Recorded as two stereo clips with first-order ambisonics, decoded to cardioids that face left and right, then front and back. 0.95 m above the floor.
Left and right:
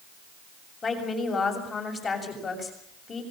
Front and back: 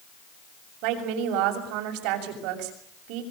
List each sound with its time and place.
0.8 s a woman speaking: 160° left, 7 m